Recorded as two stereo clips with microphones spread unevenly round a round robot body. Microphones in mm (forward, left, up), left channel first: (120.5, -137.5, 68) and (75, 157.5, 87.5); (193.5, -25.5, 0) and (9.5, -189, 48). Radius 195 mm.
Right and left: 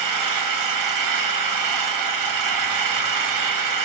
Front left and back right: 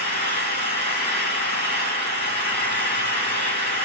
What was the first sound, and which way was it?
An engine running, 110° left.